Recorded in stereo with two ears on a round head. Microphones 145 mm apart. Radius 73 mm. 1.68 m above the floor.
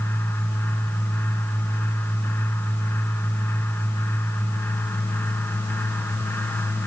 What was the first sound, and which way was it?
Only background noise.